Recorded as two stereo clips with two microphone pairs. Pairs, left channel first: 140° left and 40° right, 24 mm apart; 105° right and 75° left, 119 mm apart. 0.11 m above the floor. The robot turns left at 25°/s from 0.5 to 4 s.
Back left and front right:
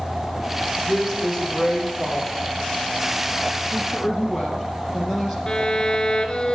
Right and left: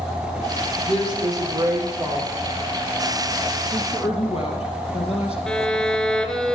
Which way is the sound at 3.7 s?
110° right.